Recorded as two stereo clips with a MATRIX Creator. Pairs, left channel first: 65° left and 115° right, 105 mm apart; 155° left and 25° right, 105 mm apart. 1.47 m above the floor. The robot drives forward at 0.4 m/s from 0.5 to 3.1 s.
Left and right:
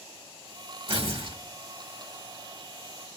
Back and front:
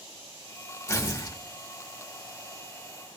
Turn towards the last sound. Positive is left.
turn(degrees=-155)